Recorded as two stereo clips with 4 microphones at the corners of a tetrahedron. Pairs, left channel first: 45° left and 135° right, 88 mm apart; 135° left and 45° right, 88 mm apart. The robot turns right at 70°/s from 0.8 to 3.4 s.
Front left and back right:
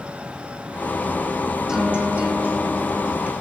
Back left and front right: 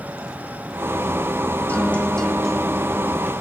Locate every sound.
1.7 s a guitar: 160° left, 1.4 m; by 3.3 s 85° right, 1.4 m